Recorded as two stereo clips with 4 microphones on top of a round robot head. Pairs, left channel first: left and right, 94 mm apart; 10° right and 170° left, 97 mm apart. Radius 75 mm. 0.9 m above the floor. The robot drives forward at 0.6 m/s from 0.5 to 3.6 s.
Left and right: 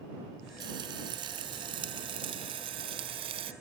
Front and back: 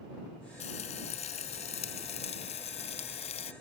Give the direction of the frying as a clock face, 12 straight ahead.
1 o'clock.